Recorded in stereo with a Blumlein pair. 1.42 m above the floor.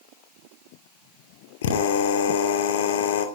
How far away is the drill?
About 2.5 m.